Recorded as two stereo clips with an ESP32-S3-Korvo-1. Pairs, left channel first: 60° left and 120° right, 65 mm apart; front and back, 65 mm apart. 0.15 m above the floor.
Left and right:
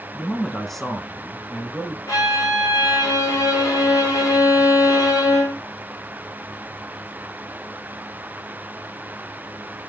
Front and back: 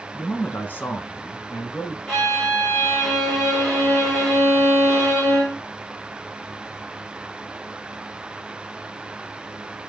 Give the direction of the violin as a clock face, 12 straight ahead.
9 o'clock.